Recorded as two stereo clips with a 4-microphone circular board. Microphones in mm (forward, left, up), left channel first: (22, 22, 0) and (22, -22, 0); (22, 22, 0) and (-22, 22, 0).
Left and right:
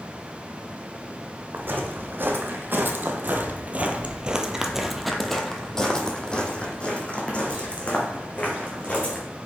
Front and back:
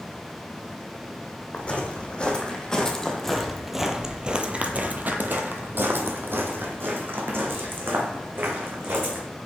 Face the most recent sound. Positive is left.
turn(degrees=145)